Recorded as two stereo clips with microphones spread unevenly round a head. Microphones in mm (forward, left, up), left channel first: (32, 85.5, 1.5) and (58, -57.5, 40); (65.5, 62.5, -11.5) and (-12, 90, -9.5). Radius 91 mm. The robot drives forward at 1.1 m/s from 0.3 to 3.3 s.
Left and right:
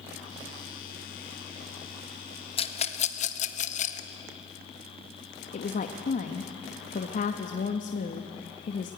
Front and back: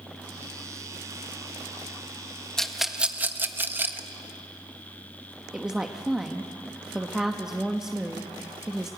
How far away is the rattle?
About 1.6 m.